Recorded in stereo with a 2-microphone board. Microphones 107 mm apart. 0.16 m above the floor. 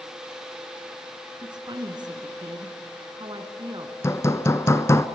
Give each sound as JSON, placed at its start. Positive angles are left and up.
{"t": 1.4, "sound": "a woman speaking", "side_deg": -40, "distance_m": 2.5}
{"t": 4.0, "sound": "hammering", "side_deg": 25, "distance_m": 0.9}